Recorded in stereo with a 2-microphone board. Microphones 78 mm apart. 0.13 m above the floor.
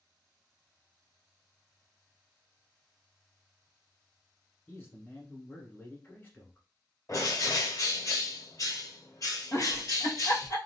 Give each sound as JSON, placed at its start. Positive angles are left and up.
{"t": 4.7, "sound": "a man speaking", "side_deg": 25, "distance_m": 1.1}
{"t": 7.1, "sound": "a bird", "side_deg": 45, "distance_m": 1.0}
{"t": 9.5, "sound": "a giggle", "side_deg": 45, "distance_m": 0.8}